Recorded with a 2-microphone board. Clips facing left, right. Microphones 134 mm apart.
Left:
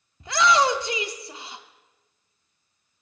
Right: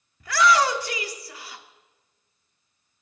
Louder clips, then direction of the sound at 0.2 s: Even; 20° left (ahead or behind).